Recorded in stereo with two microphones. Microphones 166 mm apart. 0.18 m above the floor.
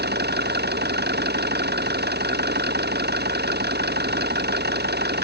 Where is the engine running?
80° right.